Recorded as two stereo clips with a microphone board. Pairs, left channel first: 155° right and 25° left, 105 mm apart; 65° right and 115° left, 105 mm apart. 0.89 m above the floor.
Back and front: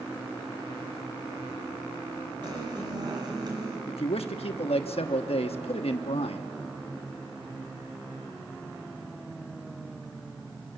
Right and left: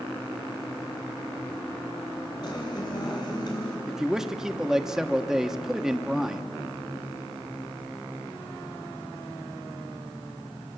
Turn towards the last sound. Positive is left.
turn(degrees=-165)